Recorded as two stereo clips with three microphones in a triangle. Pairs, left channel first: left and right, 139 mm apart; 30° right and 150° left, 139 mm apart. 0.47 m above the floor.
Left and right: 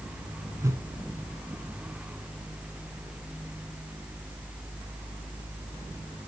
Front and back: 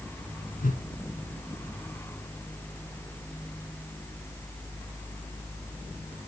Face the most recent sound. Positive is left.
turn(degrees=-20)